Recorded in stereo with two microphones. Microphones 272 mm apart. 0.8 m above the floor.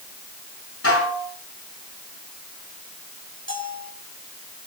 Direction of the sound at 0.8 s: 55° left (ahead or behind).